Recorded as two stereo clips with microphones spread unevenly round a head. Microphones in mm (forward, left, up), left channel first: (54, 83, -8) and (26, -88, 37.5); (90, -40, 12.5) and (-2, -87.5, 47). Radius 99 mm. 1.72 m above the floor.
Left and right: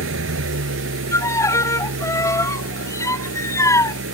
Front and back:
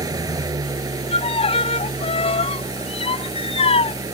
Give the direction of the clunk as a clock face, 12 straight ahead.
No clunk in this recording.